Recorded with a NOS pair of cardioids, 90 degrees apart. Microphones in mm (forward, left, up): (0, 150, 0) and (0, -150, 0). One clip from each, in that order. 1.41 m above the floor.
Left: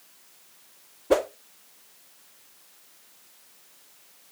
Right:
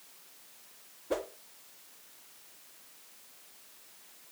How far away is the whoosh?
About 0.6 m.